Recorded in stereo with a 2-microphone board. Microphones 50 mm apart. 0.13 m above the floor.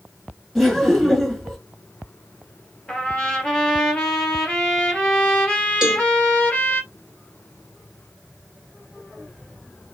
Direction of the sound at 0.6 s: Centre (ahead or behind).